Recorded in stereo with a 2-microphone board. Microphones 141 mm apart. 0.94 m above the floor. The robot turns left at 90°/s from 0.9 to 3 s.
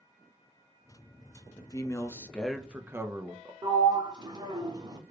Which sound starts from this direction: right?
A sliding door, at 3.6 s.